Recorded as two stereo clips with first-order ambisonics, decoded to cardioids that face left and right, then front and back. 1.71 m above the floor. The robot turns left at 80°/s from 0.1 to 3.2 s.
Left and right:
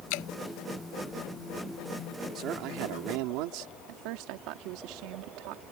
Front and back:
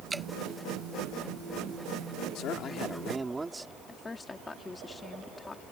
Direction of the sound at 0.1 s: 105° left.